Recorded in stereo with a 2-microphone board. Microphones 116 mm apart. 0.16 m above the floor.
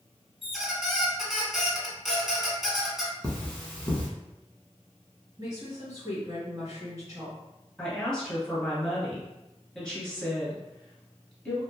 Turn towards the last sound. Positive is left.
turn(degrees=10)  # may be behind; listen again after turning